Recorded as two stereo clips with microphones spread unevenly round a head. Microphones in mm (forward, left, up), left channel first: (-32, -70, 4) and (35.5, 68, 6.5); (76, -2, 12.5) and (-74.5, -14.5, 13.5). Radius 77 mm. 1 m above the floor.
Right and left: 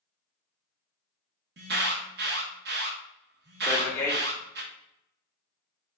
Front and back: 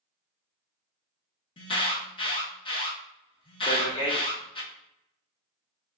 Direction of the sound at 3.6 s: 50° right.